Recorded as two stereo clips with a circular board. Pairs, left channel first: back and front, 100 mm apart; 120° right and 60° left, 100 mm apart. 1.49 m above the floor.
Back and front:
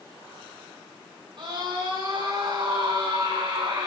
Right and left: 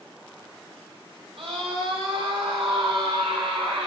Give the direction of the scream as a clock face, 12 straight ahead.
11 o'clock.